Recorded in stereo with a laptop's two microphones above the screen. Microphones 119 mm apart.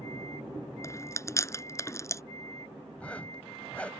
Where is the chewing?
25° left (ahead or behind).